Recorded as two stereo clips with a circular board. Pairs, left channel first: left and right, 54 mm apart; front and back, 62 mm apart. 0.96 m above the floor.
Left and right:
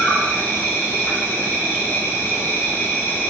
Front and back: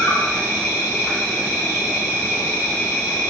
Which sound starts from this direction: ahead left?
An insect, at 0.0 s.